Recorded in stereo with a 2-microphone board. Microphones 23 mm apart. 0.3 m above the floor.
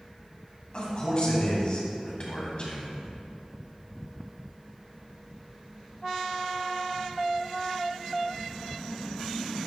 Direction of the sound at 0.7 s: 45° left (ahead or behind).